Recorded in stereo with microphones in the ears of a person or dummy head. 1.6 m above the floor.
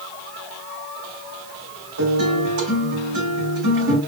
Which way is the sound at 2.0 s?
65° right (ahead or behind).